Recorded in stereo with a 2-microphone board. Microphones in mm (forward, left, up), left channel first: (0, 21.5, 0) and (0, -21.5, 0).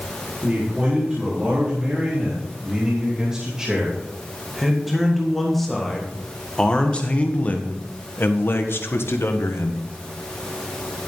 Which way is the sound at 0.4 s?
20° right (ahead or behind).